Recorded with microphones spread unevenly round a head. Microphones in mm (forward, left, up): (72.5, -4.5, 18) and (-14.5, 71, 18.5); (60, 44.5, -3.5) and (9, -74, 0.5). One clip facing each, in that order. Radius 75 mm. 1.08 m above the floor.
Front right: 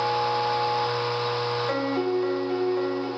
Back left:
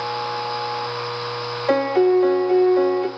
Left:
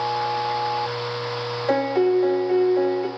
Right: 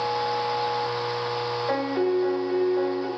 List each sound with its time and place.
1.7 s a piano: 120° left, 1.0 m